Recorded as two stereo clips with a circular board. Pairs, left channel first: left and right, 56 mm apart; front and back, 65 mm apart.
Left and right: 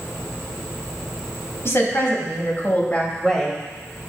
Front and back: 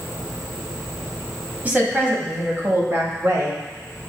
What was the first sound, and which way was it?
A woman speaking, 120° left.